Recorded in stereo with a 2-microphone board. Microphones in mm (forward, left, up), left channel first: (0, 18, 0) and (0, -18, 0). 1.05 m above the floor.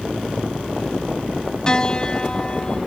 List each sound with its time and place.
1.7 s a piano: 25° left (ahead or behind)